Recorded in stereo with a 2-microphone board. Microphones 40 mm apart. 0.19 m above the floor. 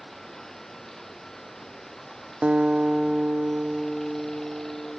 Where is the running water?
10° left (ahead or behind).